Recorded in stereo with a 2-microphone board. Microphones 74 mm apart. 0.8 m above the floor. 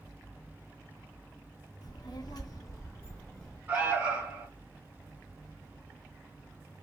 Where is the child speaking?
55° left (ahead or behind), 0.7 m; by 3.6 s 10° left (ahead or behind), 0.7 m.